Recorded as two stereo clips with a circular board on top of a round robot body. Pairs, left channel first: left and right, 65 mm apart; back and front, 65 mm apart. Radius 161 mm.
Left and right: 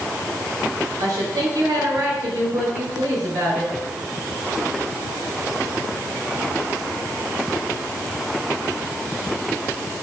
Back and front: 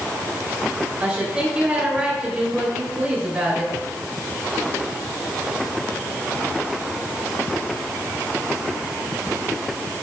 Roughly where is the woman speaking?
Right.